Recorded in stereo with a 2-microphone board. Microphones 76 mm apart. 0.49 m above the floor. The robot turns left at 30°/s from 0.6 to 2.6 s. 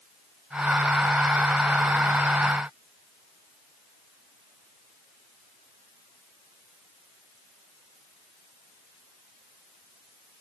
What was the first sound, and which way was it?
Only background noise.